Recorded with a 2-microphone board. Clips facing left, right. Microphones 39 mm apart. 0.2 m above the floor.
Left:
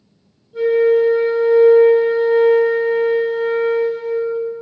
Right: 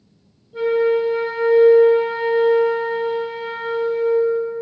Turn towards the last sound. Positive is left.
turn(degrees=-25)  # may be behind; listen again after turning